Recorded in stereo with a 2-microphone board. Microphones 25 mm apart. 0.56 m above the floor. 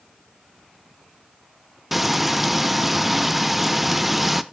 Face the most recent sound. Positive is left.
turn(degrees=-5)  # may be behind; listen again after turning